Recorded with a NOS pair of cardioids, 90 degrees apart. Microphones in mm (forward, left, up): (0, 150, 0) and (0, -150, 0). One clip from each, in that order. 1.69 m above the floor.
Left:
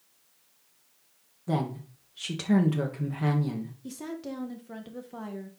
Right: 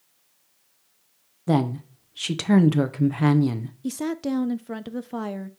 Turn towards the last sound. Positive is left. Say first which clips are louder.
# right 12 dB
turn(degrees=-45)